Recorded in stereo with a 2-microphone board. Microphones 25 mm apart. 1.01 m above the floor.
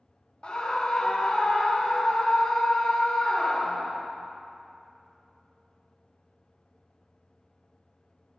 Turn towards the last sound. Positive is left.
turn(degrees=40)  # may be behind; listen again after turning